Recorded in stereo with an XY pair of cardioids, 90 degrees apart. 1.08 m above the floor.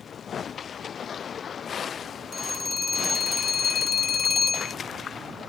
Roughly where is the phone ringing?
Ahead left.